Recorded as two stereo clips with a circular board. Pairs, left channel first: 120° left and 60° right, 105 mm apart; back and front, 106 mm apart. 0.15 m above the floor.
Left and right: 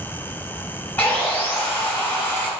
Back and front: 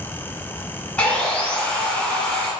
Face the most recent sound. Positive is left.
turn(degrees=120)